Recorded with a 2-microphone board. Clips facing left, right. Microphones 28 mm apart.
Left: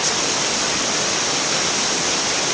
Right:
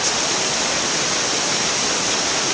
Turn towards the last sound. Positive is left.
No sound to turn to.